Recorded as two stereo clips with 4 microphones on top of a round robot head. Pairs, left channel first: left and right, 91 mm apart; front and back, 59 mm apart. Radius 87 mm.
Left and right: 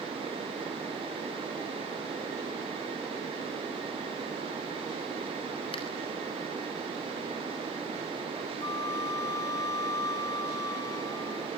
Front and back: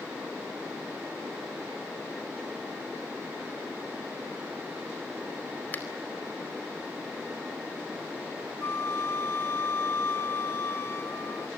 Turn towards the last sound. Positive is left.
turn(degrees=40)